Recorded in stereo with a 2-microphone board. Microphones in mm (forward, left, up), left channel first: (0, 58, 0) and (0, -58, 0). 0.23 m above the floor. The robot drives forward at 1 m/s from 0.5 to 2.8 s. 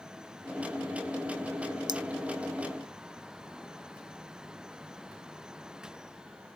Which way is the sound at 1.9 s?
40° right (ahead or behind).